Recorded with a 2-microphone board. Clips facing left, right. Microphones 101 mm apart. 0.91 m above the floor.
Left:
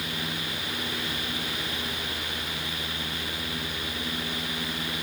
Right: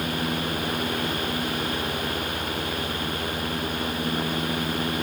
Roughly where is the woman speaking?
No woman speaking in this recording.